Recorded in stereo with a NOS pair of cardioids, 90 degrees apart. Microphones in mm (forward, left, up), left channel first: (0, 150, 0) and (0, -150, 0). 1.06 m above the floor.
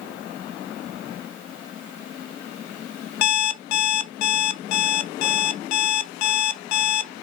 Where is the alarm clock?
70° left, 0.6 m.